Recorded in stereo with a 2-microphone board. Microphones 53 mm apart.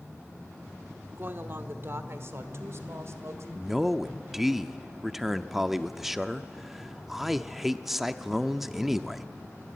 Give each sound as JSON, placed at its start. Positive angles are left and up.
{"t": 1.2, "sound": "a woman speaking", "side_deg": -45, "distance_m": 1.3}
{"t": 3.5, "sound": "a man speaking", "side_deg": -5, "distance_m": 0.7}